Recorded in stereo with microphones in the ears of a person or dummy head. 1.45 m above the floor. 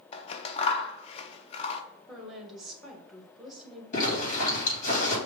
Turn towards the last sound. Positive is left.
turn(degrees=40)  # may be behind; listen again after turning